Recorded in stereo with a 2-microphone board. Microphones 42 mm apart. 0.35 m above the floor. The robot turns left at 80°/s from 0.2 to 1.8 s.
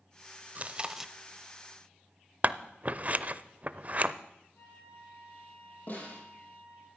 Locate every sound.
0.6 s chewing: 135° right, 0.8 m; by 1.1 s straight behind, 0.8 m
2.4 s scissors: 35° right (ahead or behind), 0.6 m
4.5 s a flute: 80° left, 8 m
5.9 s a snare drum: 50° left (ahead or behind), 9 m